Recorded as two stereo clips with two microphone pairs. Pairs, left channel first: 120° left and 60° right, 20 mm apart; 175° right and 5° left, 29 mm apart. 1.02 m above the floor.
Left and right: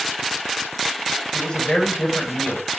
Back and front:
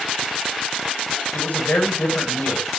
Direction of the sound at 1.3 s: 170° left.